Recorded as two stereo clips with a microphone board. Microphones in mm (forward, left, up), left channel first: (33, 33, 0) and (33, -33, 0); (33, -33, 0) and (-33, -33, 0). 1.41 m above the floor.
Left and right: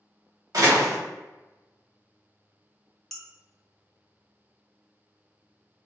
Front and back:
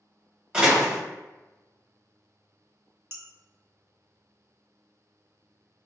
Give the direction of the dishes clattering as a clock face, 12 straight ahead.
6 o'clock.